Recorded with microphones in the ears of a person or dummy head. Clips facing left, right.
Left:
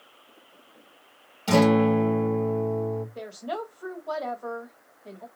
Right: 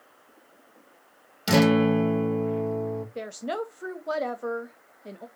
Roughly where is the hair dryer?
No hair dryer in this recording.